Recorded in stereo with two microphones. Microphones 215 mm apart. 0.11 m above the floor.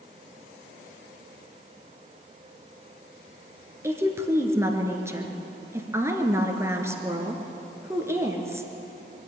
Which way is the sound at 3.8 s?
10° right (ahead or behind).